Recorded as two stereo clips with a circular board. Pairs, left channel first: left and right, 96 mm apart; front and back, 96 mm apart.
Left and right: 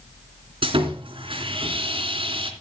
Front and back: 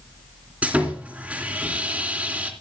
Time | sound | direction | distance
0.6 | sawing | 105° right | 3 m